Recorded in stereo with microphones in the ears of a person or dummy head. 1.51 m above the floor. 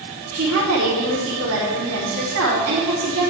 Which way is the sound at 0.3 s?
80° right.